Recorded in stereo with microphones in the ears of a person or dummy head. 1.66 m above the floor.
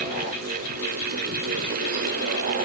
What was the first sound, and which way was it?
Only background noise.